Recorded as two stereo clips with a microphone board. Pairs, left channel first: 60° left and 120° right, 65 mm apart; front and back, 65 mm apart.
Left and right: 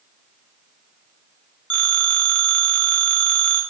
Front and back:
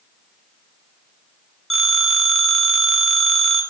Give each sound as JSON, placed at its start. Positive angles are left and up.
{"t": 1.7, "sound": "a phone ringing", "azimuth_deg": 80, "distance_m": 0.6}